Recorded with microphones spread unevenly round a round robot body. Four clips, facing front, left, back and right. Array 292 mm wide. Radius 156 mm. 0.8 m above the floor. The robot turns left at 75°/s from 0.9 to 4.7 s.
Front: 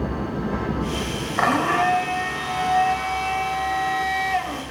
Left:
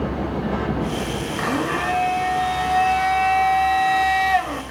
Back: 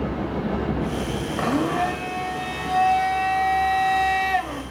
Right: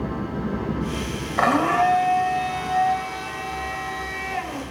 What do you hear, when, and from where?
1.4 s a blender: 50° right, 1.5 m; by 4.6 s 65° left, 1.5 m